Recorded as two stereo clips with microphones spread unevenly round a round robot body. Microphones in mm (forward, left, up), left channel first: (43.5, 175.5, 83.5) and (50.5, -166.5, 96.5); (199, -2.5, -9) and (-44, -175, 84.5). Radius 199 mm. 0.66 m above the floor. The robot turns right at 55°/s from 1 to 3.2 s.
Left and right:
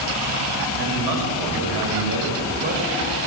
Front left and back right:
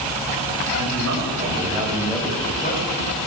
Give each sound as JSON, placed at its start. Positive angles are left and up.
{"t": 0.8, "sound": "a man speaking", "azimuth_deg": -115, "distance_m": 4.0}